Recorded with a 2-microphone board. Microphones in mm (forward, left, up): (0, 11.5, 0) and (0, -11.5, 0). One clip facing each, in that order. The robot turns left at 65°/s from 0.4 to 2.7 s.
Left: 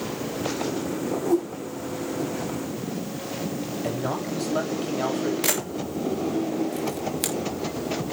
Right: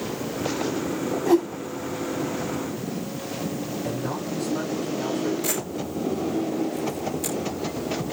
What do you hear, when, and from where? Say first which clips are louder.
1.3 s a whoosh: right 4 dB; 55° right (ahead or behind), 2.5 m; by 1.5 s 65° right (ahead or behind), 2.5 m
3.8 s a man speaking: left 3 dB; 60° left (ahead or behind), 7 m
5.4 s a camera shutter: left 1 dB; 85° left, 3 m